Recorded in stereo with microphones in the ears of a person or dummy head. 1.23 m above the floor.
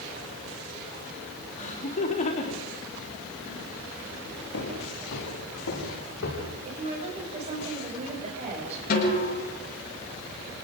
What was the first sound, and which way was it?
Laughter, 40° left (ahead or behind).